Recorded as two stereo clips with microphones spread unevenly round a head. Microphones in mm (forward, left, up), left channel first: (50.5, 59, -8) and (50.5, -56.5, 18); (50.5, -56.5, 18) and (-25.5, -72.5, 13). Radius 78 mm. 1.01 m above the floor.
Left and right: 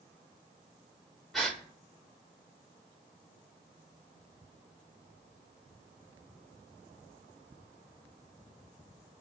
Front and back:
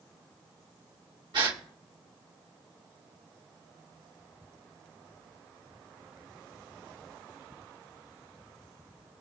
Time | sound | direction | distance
1.3 | a gasp | 170° right | 1.0 m